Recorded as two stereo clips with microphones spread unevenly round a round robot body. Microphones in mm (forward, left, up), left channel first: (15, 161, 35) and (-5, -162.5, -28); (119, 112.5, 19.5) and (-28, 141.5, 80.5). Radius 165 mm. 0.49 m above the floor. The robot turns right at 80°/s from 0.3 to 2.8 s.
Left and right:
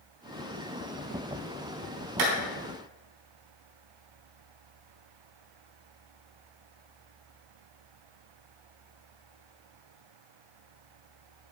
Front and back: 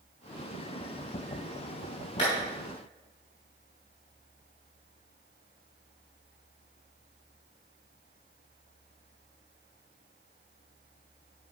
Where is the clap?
70° right, 3.5 m; by 2.3 s 60° right, 3.5 m.